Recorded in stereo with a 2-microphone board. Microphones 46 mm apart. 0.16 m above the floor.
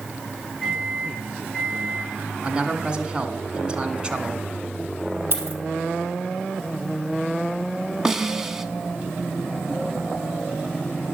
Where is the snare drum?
10° right (ahead or behind), 0.6 m.